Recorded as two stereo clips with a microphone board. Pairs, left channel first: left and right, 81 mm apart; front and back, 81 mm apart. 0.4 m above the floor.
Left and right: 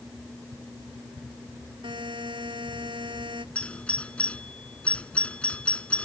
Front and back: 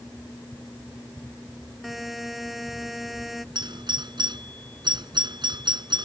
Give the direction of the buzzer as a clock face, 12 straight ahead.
3 o'clock.